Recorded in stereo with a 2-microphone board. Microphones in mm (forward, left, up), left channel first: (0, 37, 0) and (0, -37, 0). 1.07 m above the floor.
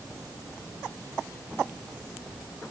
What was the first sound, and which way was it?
Only background noise.